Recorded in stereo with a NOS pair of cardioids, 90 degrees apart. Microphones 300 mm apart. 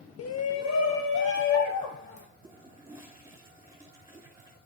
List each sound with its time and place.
0.2 s a shout: 50° left, 1.0 m; by 2.3 s 75° left, 3 m
2.4 s a toilet flushing: 10° right, 4 m